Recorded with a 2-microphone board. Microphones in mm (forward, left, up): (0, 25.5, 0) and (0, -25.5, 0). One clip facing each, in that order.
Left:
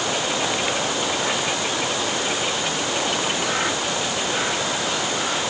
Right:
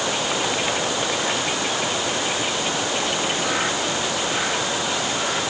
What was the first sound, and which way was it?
Only background noise.